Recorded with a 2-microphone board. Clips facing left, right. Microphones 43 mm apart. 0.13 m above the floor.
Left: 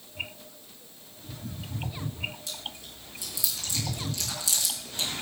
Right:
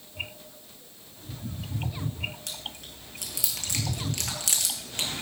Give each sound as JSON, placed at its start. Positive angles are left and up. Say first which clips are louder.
{"t": 2.5, "sound": "chewing", "louder": "even", "side_deg": -60, "distance_m": 2.0}